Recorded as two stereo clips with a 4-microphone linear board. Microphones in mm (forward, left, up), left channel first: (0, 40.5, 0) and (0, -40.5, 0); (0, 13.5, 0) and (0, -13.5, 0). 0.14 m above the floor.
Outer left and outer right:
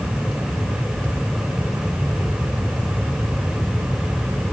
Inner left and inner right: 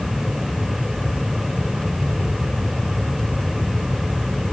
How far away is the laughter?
I don't hear laughter.